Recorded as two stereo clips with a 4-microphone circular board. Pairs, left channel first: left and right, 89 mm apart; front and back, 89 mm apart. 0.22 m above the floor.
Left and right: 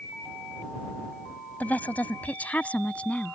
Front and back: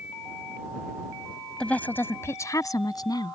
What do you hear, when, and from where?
1.6 s a woman speaking: 60° left; by 3.4 s 20° left